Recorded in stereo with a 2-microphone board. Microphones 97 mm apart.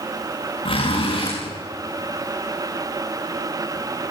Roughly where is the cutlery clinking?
I don't hear cutlery clinking.